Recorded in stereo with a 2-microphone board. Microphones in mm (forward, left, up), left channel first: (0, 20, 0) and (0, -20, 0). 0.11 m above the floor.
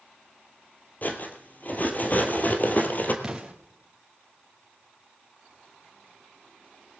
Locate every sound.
1.0 s cutlery clinking: 40° left (ahead or behind), 1.4 m
3.2 s an explosion: 15° right (ahead or behind), 2.5 m